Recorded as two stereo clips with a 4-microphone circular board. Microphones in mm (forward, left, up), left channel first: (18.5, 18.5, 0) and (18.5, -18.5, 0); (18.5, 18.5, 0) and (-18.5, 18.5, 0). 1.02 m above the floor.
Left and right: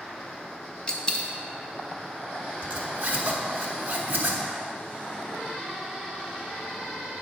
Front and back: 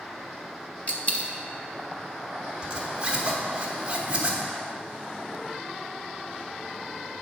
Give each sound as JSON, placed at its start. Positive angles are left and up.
{"t": 0.9, "sound": "a dropped coin", "azimuth_deg": 30, "distance_m": 0.6}
{"t": 2.6, "sound": "a zipper", "azimuth_deg": -115, "distance_m": 1.0}